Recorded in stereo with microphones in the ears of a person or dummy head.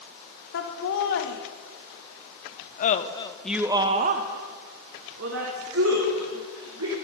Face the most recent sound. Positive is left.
turn(degrees=-75)  # may be behind; listen again after turning